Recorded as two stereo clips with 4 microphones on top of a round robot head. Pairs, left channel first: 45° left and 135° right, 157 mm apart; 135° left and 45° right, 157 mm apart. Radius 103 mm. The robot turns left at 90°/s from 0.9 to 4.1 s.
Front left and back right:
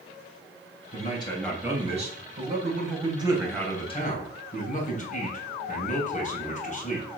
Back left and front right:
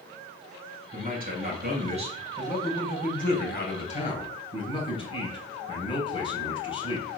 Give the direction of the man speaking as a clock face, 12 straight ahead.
12 o'clock.